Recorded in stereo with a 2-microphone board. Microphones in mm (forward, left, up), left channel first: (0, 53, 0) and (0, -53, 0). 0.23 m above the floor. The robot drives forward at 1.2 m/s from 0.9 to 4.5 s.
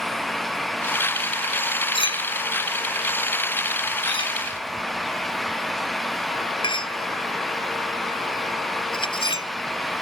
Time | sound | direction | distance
1.9 | a clink | 50° left (ahead or behind) | ?